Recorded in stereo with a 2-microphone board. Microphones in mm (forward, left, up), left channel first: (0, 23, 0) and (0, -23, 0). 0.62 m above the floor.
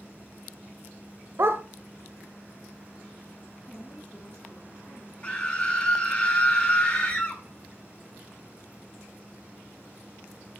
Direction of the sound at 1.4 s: 55° right (ahead or behind).